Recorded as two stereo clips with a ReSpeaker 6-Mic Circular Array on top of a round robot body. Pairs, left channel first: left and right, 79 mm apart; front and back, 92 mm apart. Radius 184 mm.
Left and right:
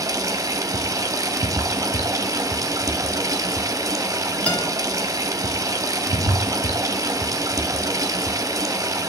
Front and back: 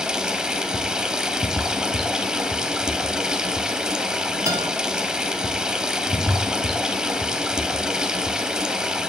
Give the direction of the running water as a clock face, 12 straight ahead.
3 o'clock.